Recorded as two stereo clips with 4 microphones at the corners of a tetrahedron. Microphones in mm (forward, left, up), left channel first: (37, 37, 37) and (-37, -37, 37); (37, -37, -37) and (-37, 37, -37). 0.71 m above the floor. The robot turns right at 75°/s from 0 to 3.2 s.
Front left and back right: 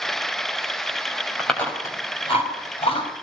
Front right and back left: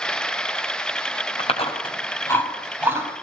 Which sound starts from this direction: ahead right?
Chewing, at 1.4 s.